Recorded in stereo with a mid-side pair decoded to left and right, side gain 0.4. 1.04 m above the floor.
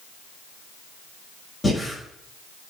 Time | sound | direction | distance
1.6 | breathing | 25° left | 5.5 m